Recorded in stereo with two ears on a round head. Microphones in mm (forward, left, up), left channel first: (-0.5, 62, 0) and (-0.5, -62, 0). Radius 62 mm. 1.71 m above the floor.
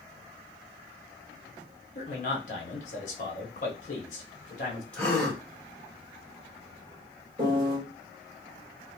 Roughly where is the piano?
Right.